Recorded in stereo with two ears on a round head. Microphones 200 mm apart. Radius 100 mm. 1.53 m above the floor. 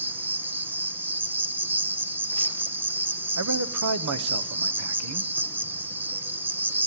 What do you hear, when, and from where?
0.0 s an insect: 10° right (ahead or behind), 0.8 m
3.4 s a man speaking: 80° right, 0.8 m